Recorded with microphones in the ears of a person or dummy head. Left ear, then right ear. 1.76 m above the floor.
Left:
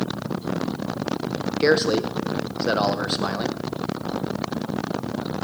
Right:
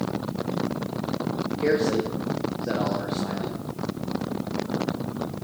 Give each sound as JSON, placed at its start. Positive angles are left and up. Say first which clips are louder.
{"t": 1.6, "sound": "a man speaking", "louder": "left 4 dB", "side_deg": 55, "distance_m": 1.1}